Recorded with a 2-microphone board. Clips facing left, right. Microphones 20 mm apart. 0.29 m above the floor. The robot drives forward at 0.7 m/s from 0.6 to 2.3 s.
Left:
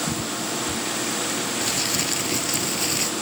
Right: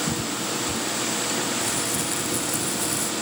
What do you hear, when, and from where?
1.6 s crumpling: 50° left (ahead or behind); by 3.1 s 45° left (ahead or behind)